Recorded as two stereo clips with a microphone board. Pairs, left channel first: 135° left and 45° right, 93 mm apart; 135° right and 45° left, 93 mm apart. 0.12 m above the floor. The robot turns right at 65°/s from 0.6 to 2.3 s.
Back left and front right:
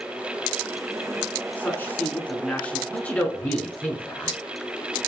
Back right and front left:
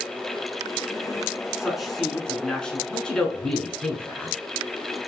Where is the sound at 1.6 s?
115° left, 1.0 m; by 2.8 s 160° left, 1.0 m.